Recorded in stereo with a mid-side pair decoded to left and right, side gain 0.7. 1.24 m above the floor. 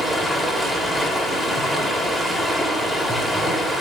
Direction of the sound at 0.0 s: Straight ahead.